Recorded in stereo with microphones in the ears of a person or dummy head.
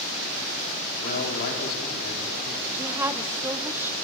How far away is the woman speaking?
About 0.7 m.